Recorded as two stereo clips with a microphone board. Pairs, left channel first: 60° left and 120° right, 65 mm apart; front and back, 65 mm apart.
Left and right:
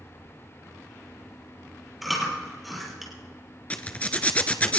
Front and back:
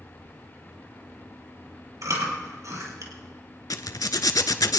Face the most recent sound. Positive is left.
turn(degrees=-5)